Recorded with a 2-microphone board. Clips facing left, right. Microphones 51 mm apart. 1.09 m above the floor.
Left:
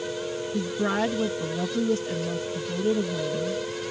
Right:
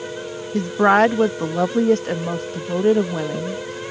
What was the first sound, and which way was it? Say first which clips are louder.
A woman speaking: right 12 dB; 60° right (ahead or behind).